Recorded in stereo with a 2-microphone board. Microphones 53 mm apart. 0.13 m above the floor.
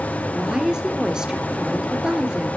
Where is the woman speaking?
10° right (ahead or behind), 3 m.